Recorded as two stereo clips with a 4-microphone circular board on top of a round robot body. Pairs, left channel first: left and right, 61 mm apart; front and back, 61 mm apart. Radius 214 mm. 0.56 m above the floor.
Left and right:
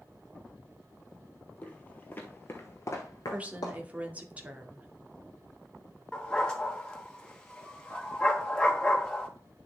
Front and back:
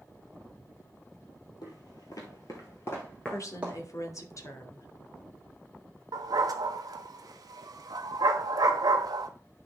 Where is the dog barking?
165° left, 0.9 m.